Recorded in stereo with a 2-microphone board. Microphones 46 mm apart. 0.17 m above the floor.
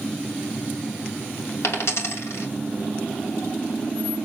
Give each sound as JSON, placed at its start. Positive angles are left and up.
{"t": 1.6, "sound": "a dropped coin", "side_deg": 65, "distance_m": 3.0}